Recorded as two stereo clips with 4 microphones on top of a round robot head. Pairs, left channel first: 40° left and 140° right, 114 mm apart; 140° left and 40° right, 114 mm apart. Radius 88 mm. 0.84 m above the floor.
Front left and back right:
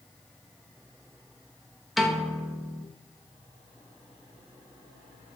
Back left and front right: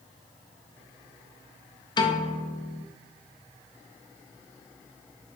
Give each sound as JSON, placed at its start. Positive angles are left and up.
{"t": 2.0, "sound": "a piano", "azimuth_deg": 130, "distance_m": 0.5}